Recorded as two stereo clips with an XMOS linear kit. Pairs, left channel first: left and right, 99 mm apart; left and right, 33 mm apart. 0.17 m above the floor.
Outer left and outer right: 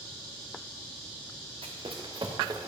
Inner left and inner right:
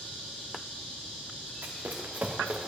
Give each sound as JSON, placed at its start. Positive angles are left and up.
{"t": 1.6, "sound": "running footsteps", "side_deg": -75, "distance_m": 1.1}